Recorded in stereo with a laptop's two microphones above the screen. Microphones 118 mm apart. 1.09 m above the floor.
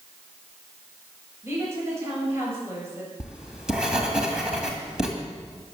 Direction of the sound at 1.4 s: 20° right (ahead or behind).